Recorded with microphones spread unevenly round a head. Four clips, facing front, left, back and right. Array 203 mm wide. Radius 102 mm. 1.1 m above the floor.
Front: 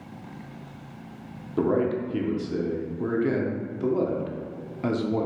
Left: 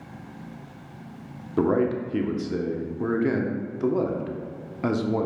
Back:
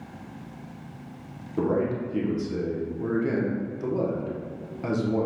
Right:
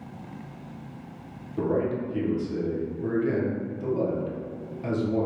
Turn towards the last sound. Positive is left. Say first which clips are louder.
# left 4 dB, front 2 dB
turn(degrees=75)